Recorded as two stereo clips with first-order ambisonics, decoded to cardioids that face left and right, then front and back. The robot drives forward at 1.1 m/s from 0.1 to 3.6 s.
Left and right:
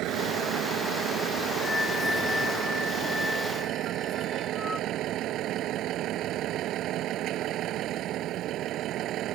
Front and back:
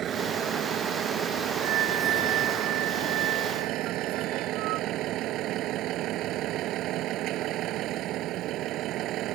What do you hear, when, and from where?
0.0 s a vehicle: 125° right; by 9.4 s 135° right
1.6 s a flute: 165° left; by 4.9 s 175° left